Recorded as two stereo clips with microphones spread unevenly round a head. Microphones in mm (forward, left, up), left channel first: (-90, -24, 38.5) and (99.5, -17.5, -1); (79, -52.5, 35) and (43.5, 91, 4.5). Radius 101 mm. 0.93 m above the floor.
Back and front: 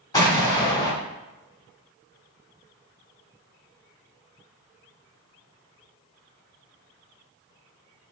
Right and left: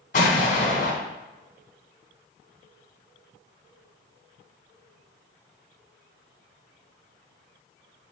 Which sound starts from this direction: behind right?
An explosion, at 0.1 s.